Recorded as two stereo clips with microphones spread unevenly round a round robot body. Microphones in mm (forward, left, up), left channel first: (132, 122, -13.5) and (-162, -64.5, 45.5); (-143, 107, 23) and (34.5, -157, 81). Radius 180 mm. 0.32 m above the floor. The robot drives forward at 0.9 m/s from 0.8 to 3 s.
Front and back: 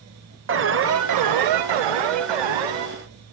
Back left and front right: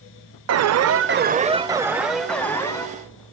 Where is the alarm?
90° right, 1.0 m; by 2.9 s 160° right, 2 m.